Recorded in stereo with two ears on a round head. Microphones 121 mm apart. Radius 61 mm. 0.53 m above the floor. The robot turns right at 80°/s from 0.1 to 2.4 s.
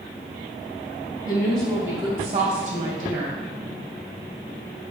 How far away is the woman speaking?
About 2.5 m.